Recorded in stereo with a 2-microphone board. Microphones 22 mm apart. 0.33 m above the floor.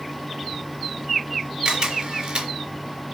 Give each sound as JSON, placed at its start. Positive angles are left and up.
{"t": 1.6, "sound": "a camera shutter", "side_deg": -55, "distance_m": 3.5}